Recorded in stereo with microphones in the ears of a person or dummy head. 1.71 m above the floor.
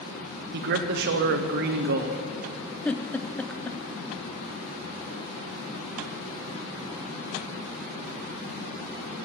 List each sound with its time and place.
0.5 s a man speaking: 55° right (ahead or behind), 0.7 m
2.9 s a giggle: 10° left (ahead or behind), 0.5 m